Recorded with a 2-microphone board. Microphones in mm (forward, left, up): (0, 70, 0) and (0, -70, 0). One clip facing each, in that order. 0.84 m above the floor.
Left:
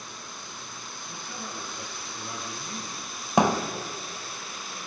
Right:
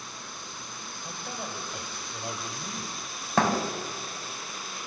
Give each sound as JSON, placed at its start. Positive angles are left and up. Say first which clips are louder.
{"t": 1.0, "sound": "a man speaking", "louder": "right 3 dB", "side_deg": -80, "distance_m": 4.5}
{"t": 3.4, "sound": "a thud", "louder": "left 3 dB", "side_deg": 15, "distance_m": 2.0}